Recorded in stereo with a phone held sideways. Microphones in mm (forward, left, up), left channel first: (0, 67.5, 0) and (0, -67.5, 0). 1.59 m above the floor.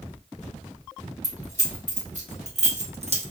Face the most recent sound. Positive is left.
turn(degrees=-45)  # may be behind; listen again after turning